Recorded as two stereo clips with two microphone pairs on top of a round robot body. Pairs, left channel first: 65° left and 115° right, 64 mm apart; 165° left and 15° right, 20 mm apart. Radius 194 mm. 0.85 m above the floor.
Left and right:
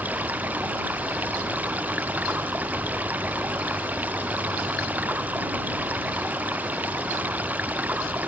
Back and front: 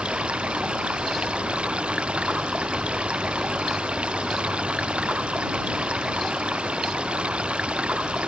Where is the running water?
45° right.